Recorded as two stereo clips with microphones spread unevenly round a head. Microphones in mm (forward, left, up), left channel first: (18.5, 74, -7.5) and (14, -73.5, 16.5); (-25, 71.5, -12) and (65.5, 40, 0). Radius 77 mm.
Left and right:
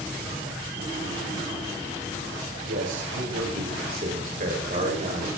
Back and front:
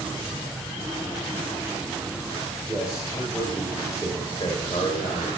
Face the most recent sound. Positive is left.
turn(degrees=-150)